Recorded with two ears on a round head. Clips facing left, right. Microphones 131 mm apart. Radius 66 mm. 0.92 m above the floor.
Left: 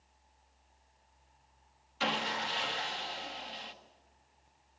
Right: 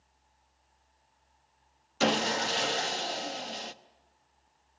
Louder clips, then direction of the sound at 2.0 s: Right 7 dB; 50° right (ahead or behind).